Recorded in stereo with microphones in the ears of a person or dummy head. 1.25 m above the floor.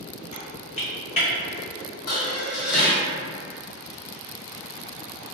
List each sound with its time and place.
0.3 s typing on a keyboard: 35° left (ahead or behind), 0.9 m
2.1 s dishes clattering: 75° left (ahead or behind), 0.9 m